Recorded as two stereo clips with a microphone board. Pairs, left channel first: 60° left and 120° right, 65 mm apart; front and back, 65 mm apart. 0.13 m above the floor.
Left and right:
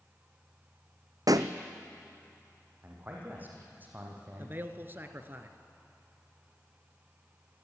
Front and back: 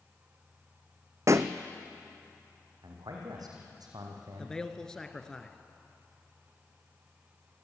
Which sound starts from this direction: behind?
A man speaking, at 2.8 s.